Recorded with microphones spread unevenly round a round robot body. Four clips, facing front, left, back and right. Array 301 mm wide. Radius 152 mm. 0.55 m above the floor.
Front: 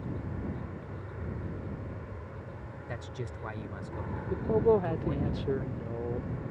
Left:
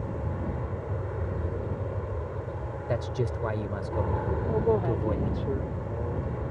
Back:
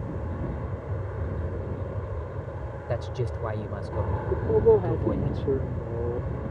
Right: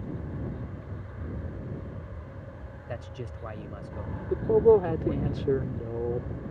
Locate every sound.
0.0 s an aircraft: 115° left
2.9 s a man speaking: 115° left
4.3 s a man speaking: 125° right